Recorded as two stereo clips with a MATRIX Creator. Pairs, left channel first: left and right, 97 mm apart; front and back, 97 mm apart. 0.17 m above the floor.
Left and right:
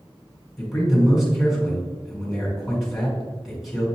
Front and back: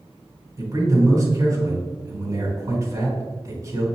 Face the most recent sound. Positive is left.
turn(degrees=-175)